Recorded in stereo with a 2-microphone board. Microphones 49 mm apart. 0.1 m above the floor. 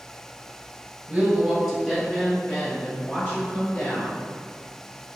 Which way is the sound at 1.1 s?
20° right (ahead or behind).